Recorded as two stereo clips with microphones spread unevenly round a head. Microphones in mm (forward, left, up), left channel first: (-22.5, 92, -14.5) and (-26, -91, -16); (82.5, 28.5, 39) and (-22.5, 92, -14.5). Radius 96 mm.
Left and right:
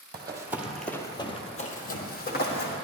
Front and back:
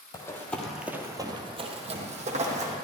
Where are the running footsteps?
35° right, 1.6 m; by 2.7 s 110° left, 2.5 m.